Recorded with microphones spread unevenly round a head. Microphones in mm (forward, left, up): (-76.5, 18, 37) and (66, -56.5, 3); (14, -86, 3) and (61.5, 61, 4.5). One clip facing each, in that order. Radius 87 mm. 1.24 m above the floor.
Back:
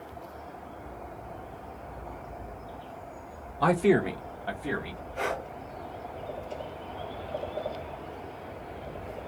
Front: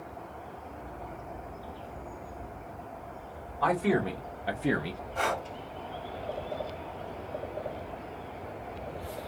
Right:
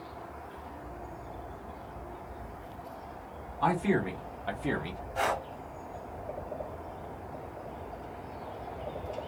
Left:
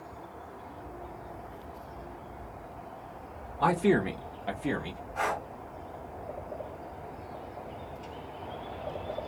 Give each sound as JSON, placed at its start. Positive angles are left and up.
{"t": 3.6, "sound": "a man speaking", "azimuth_deg": 105, "distance_m": 0.7}
{"t": 5.2, "sound": "breathing", "azimuth_deg": -55, "distance_m": 1.2}